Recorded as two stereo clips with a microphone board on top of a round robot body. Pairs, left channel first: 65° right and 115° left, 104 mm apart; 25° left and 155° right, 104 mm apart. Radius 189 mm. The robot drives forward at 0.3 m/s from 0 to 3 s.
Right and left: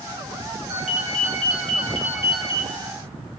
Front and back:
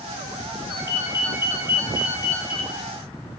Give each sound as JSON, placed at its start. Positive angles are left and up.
{"t": 0.7, "sound": "a ringtone", "azimuth_deg": 140, "distance_m": 2.5}